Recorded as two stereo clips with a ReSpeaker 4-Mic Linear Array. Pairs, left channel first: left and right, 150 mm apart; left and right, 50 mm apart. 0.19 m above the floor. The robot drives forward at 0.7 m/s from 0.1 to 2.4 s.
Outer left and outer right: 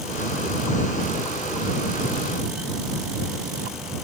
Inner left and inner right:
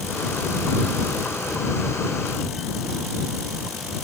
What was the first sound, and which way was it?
Only background noise.